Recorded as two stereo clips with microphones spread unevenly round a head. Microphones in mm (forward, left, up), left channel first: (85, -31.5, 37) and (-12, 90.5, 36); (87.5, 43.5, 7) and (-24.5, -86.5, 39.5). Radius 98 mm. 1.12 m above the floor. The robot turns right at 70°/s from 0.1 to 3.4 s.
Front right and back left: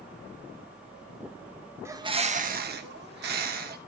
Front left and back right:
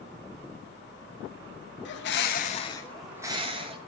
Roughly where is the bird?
Ahead left.